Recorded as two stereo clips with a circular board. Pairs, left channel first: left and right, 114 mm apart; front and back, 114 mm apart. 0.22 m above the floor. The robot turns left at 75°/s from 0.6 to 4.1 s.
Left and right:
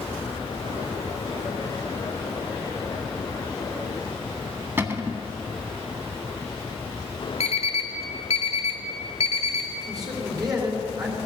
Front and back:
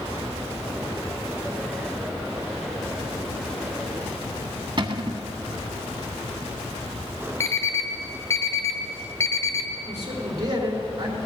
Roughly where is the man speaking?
Behind right.